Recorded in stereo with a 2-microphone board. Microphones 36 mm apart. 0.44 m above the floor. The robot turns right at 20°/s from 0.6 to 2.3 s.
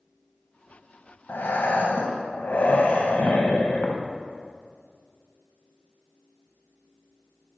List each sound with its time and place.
1.3 s breathing: 75° left (ahead or behind), 0.9 m; by 4.0 s 60° left (ahead or behind), 0.9 m